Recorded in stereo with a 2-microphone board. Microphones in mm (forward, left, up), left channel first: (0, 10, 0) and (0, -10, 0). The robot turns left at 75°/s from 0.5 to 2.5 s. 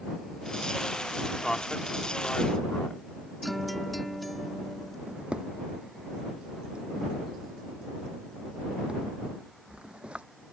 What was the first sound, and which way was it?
A man speaking, 10° left (ahead or behind).